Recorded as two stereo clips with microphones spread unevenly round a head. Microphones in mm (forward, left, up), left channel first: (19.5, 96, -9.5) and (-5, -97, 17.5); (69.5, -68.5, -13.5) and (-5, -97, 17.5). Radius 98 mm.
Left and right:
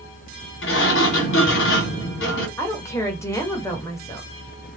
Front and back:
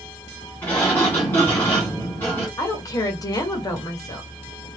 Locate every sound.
0.6 s a sliding door: 110° left, 1.6 m
2.6 s a woman speaking: 10° left, 1.4 m